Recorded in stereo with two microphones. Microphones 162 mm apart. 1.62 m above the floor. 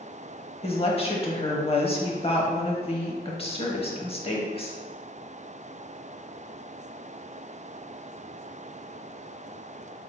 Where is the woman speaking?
35° left (ahead or behind), 0.8 m.